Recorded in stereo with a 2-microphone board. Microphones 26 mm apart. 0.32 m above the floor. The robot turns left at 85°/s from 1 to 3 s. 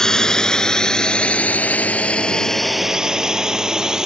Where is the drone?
20° left (ahead or behind); by 4.1 s 20° right (ahead or behind).